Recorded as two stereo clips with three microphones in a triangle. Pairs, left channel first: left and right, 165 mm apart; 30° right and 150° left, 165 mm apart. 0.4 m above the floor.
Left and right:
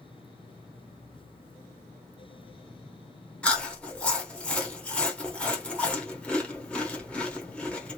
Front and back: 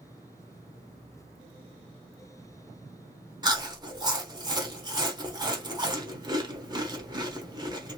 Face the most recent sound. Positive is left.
turn(degrees=165)